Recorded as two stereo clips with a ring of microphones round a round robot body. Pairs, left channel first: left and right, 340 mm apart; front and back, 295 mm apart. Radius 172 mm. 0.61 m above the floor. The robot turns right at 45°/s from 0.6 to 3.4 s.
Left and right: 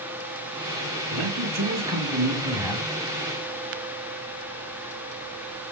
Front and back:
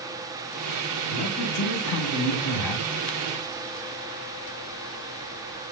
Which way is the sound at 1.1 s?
80° right.